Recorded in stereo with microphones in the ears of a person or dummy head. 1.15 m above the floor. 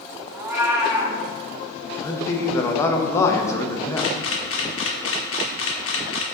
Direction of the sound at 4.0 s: 65° left (ahead or behind).